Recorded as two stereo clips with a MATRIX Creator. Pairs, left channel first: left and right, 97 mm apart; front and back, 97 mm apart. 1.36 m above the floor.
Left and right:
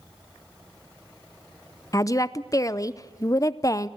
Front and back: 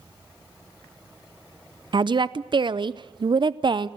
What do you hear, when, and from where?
1.9 s a woman speaking: 145° left, 0.5 m